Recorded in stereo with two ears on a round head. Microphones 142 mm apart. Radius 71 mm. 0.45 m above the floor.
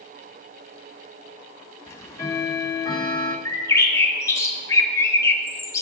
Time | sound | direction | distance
1.9 | ticking | 20° left (ahead or behind) | 1.0 m
3.5 | a bird | 20° left (ahead or behind) | 0.8 m